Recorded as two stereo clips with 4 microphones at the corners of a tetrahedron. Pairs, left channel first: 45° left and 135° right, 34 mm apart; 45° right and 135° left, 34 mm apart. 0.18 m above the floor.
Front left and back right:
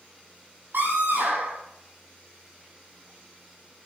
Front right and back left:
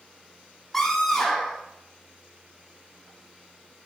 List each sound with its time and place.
0.7 s a scream: 125° right, 7 m